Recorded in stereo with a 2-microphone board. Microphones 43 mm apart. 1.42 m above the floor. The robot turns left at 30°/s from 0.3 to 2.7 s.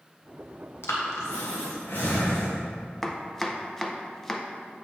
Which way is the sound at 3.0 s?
10° left (ahead or behind).